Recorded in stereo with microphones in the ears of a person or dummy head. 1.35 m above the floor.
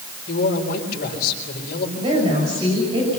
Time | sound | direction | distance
0.3 | a man speaking | 50° left (ahead or behind) | 4.5 m
2.0 | a woman speaking | 30° right (ahead or behind) | 6.5 m